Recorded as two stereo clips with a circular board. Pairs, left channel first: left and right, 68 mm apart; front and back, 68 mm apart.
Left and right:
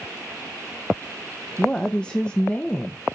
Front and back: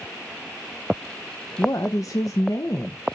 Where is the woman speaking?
15° left, 0.7 m.